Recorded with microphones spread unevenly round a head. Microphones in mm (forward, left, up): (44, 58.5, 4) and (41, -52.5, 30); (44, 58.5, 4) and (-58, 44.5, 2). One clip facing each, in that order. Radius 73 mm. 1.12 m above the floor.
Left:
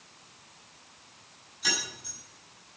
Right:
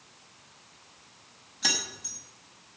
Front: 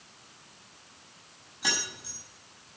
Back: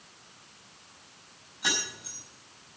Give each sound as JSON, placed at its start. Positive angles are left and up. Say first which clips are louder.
{"t": 1.6, "sound": "keys jangling", "louder": "even, back 1 dB", "azimuth_deg": -80, "distance_m": 6.0}